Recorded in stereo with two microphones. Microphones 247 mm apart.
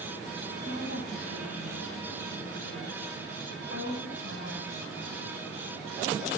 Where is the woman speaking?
70° left (ahead or behind), 3.5 m.